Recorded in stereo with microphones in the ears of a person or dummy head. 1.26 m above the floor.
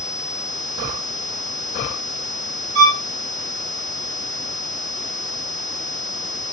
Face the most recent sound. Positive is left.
turn(degrees=-60)  # may be behind; listen again after turning